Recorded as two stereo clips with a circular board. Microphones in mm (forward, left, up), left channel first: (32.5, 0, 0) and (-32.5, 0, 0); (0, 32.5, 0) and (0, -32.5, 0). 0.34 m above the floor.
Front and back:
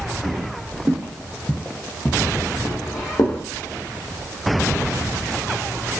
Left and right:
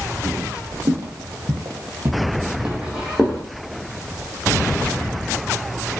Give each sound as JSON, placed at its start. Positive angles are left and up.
{"t": 0.2, "sound": "footsteps", "azimuth_deg": -125, "distance_m": 1.1}